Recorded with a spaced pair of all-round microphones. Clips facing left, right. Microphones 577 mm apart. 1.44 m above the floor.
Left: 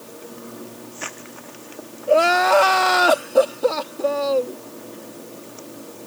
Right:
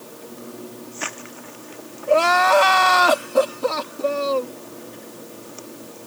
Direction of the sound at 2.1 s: 30° right (ahead or behind).